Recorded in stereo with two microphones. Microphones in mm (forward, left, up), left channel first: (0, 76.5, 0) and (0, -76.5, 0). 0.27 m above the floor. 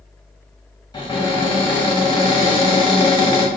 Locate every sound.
0.9 s a cupboard door: 35° left (ahead or behind), 1.0 m